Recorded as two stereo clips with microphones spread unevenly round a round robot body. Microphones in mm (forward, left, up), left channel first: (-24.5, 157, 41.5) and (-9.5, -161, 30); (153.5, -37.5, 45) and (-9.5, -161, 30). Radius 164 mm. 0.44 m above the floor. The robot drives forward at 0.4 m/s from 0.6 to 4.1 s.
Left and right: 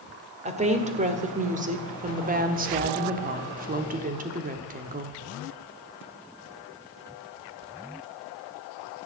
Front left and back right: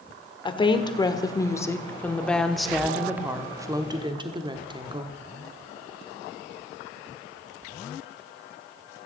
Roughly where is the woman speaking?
Ahead right.